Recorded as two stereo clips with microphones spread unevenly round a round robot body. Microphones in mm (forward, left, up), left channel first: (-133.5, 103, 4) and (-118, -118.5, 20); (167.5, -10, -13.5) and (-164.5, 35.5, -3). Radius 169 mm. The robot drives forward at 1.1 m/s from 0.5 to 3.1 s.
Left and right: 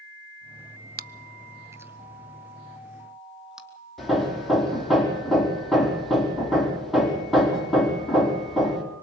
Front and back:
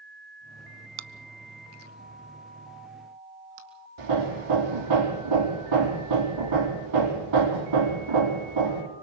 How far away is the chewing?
About 0.5 m.